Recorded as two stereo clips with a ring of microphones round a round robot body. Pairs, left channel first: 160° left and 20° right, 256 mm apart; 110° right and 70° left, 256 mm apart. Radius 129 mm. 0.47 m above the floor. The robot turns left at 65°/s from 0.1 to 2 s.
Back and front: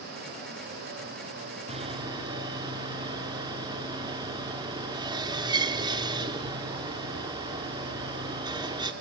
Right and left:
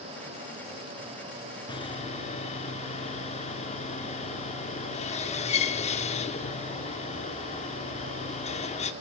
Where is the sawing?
60° right, 1.0 m; by 8.9 s 80° right, 1.0 m.